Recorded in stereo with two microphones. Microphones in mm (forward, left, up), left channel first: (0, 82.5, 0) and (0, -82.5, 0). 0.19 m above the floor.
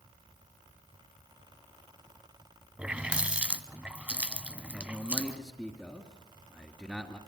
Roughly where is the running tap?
Centre.